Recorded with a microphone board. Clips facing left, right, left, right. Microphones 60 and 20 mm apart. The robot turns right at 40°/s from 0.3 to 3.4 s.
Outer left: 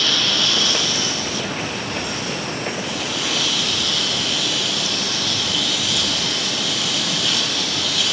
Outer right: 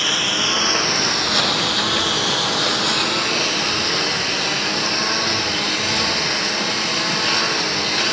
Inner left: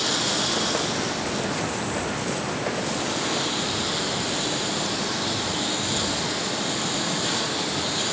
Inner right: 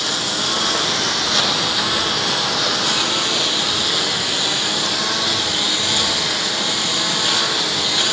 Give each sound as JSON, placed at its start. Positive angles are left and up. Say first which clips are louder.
{"t": 0.0, "sound": "a lawn mower", "louder": "even, inner right 4 dB", "azimuth_deg": -165}